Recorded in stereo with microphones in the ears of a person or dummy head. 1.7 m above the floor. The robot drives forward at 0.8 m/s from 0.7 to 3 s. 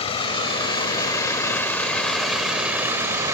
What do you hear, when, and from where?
0.0 s a vehicle: 35° left (ahead or behind); by 3.4 s 20° right (ahead or behind)